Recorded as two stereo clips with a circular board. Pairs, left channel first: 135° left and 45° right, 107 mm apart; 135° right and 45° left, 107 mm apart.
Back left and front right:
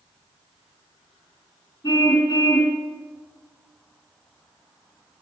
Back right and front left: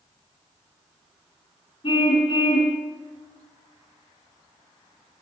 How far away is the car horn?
About 4 m.